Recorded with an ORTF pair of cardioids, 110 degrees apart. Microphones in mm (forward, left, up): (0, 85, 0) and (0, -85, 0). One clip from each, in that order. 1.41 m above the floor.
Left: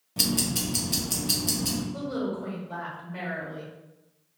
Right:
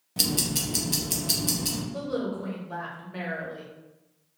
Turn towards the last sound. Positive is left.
turn(degrees=-15)